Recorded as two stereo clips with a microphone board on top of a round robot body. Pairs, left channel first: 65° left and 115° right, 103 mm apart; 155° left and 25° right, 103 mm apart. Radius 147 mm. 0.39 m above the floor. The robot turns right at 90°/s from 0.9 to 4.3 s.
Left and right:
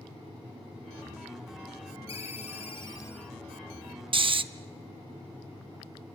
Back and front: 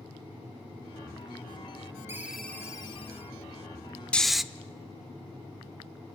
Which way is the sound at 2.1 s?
40° left.